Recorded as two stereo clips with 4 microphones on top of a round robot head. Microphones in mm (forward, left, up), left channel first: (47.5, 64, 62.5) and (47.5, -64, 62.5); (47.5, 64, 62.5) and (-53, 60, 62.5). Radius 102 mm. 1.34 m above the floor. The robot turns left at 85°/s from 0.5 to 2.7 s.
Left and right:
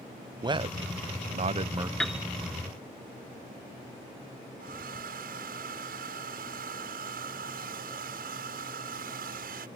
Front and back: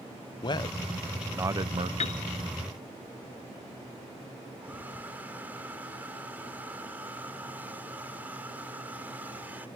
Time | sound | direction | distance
0.4 | a man speaking | 40° right | ?
2.0 | a piano | 5° left | ?
4.6 | a hair dryer | 100° right | ?